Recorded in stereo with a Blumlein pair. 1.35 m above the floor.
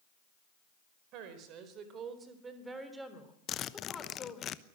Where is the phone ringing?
I don't hear a phone ringing.